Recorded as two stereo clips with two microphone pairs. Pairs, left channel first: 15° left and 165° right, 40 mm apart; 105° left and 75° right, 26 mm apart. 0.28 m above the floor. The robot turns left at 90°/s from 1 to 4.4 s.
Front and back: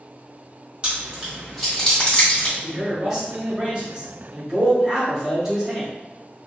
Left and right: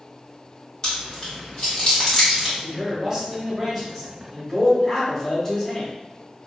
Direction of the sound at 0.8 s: 155° left.